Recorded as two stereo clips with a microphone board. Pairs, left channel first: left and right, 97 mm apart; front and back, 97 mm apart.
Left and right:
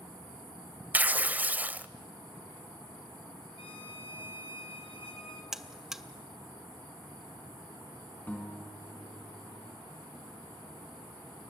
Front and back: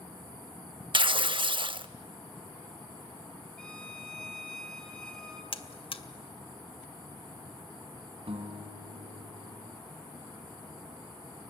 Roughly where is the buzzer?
Ahead.